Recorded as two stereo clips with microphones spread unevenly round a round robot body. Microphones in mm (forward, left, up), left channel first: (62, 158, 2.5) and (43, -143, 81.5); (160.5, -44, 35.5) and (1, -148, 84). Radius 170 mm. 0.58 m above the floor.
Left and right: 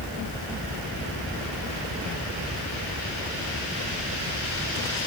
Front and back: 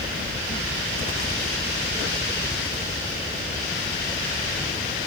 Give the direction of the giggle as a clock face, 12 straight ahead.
I don't hear a giggle.